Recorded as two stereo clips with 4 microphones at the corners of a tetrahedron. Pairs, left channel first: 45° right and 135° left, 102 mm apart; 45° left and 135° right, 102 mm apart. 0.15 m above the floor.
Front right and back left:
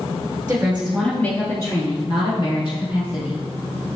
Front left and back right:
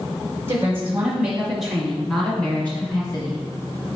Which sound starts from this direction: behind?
A woman speaking, at 0.5 s.